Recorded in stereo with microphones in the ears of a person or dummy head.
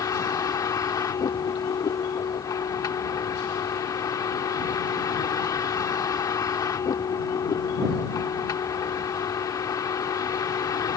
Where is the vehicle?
25° left (ahead or behind).